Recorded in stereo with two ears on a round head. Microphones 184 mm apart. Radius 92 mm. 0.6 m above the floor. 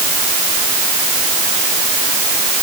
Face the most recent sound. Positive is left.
No sound to turn to.